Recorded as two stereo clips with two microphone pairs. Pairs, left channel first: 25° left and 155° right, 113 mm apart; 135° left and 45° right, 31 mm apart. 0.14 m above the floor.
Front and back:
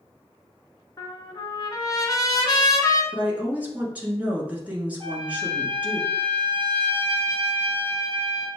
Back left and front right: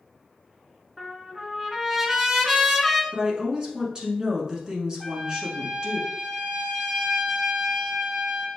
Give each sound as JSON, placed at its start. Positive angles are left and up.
{"t": 1.0, "sound": "a trumpet", "azimuth_deg": 25, "distance_m": 0.7}
{"t": 3.1, "sound": "a woman speaking", "azimuth_deg": -90, "distance_m": 1.2}
{"t": 5.0, "sound": "a trumpet", "azimuth_deg": -125, "distance_m": 0.7}